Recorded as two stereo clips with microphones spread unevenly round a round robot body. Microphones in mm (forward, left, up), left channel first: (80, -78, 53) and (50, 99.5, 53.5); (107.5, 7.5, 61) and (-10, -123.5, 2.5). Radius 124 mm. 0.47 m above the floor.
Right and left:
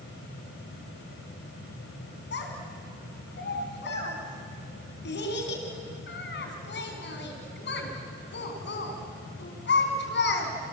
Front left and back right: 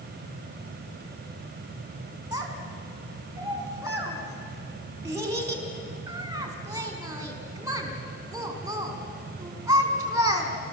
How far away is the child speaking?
About 4 m.